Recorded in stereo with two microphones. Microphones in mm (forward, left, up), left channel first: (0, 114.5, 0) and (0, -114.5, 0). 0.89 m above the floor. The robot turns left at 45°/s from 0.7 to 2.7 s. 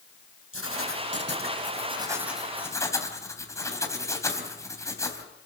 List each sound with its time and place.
0.5 s writing: 105° right, 3 m; by 5.2 s 165° left, 3 m